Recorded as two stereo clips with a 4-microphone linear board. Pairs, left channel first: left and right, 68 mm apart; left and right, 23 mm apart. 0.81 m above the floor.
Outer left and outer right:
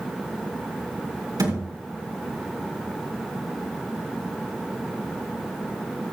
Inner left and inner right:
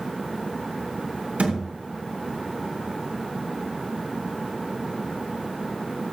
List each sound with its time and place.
1.4 s a thud: 75° right (ahead or behind), 4 m